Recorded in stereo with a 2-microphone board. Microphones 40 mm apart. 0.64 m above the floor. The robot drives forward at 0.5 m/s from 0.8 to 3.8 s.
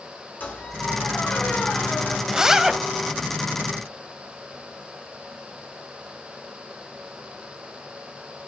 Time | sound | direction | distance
0.4 | a squeak | 50° left (ahead or behind) | 4 m
2.3 | a zipper | 15° right (ahead or behind) | 0.5 m